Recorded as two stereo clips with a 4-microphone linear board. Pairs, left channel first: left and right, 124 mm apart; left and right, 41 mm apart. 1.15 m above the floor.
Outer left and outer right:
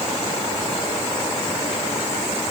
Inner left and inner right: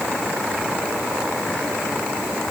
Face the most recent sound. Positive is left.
No sound to turn to.